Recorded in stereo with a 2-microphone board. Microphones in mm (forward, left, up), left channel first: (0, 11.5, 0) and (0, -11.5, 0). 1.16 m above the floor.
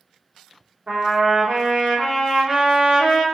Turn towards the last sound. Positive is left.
turn(degrees=-40)  # may be behind; listen again after turning